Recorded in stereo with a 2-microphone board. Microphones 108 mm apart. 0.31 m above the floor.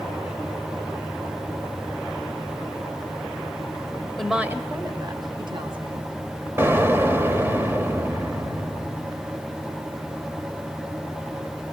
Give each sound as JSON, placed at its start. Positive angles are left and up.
{"t": 4.2, "sound": "a woman speaking", "side_deg": 0, "distance_m": 1.3}
{"t": 6.6, "sound": "an explosion", "side_deg": -20, "distance_m": 1.2}